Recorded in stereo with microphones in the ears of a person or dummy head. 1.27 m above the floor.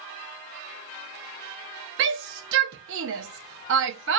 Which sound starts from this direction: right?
A shout, at 2.0 s.